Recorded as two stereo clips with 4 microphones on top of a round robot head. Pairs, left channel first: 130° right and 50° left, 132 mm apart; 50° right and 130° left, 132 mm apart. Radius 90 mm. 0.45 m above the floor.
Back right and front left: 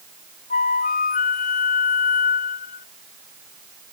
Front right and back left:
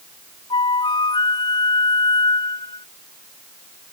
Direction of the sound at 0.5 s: 105° right.